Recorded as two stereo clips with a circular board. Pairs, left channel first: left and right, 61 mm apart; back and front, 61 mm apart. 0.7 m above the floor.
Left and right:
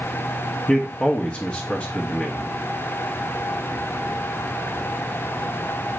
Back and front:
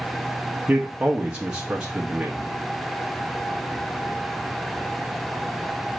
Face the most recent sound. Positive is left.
turn(degrees=55)